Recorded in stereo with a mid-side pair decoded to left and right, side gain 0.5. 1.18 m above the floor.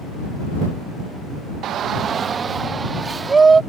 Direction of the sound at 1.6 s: 65° right.